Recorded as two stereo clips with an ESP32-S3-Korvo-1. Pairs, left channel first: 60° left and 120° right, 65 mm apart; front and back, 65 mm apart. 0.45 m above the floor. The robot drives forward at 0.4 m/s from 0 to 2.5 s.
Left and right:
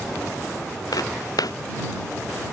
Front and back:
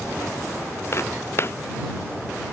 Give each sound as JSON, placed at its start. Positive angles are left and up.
{"t": 0.9, "sound": "footsteps", "azimuth_deg": 45}